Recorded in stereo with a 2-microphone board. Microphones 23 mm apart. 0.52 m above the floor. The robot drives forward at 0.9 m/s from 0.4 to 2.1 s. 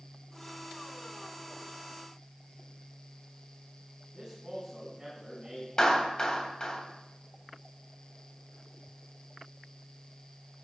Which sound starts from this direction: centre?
A man speaking, at 4.1 s.